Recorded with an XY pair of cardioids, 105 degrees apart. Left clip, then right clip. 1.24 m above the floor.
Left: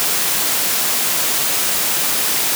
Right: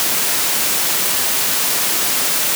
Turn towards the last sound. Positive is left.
No sound to turn to.